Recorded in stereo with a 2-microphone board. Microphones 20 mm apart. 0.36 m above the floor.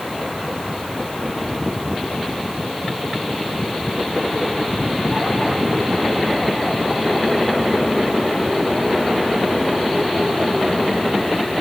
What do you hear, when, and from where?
Only background noise.